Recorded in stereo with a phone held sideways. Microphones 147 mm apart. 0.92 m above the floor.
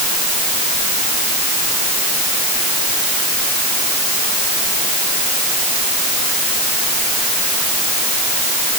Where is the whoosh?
No whoosh in this recording.